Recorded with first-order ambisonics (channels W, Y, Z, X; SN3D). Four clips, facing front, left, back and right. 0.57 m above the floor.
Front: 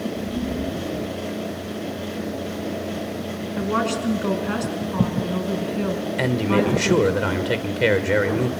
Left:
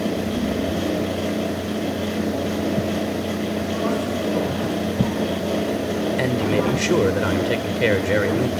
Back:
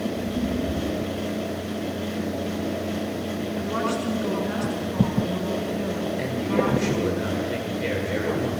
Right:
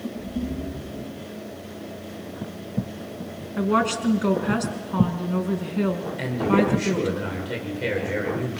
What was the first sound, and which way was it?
A woman speaking, 60° right.